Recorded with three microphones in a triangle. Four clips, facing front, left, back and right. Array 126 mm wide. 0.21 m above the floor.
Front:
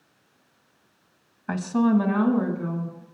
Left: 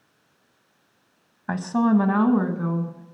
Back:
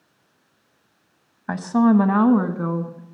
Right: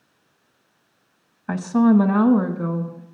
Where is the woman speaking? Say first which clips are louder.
Right 4 dB, back 4 dB; 150° left, 1.0 m; by 3.0 s 175° right, 1.9 m.